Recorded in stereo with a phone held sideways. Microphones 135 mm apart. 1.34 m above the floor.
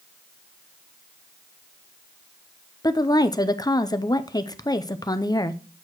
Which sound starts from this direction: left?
A woman speaking, at 2.8 s.